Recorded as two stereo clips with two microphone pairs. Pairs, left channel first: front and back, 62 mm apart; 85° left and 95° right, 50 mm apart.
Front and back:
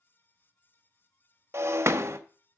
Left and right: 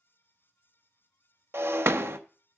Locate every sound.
1.5 s breaking glass: 135° right, 0.7 m